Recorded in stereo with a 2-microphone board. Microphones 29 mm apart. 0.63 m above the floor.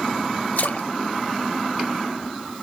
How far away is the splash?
About 0.6 m.